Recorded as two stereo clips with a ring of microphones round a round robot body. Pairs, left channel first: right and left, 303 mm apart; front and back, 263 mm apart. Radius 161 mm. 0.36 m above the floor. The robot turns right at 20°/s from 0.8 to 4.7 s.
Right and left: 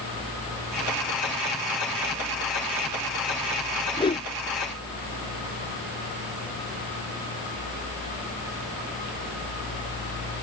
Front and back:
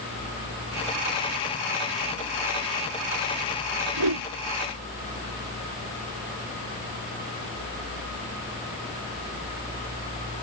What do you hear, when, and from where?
4.0 s a whoosh: 165° right; by 4.3 s 160° right